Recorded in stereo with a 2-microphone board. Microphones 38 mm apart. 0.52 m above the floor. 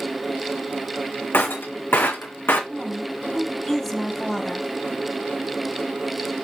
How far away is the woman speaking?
About 2.5 m.